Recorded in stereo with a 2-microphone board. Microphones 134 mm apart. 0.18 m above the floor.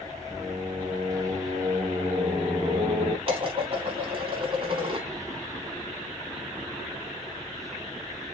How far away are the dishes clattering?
About 0.9 m.